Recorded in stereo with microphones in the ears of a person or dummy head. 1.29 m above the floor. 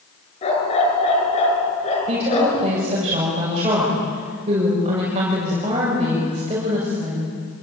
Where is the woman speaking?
35° right (ahead or behind), 7 m.